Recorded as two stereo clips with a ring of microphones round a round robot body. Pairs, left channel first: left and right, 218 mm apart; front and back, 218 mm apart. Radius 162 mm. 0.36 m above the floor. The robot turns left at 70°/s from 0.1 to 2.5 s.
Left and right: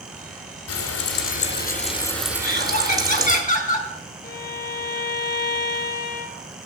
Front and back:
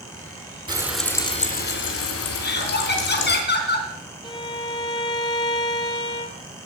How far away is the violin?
About 1.3 m.